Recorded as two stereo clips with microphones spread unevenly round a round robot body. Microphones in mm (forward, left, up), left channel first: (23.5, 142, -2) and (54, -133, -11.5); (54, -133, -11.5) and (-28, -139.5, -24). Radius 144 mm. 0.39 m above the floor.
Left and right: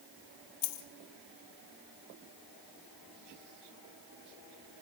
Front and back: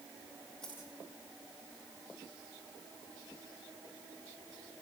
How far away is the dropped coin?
About 2 m.